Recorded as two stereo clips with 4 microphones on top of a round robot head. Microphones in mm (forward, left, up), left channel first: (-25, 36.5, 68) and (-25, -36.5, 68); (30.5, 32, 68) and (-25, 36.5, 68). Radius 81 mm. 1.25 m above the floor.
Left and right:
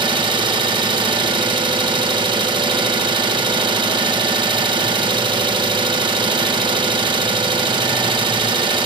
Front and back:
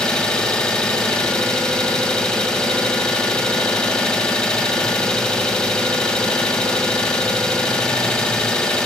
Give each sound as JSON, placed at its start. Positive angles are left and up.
{"t": 0.0, "sound": "an engine running", "azimuth_deg": -80, "distance_m": 1.4}